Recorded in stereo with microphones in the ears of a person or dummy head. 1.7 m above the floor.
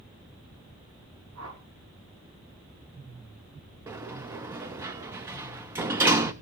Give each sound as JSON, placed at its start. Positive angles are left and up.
{"t": 1.4, "sound": "a whoosh", "side_deg": -80, "distance_m": 3.5}
{"t": 3.9, "sound": "a sliding door", "side_deg": -15, "distance_m": 0.6}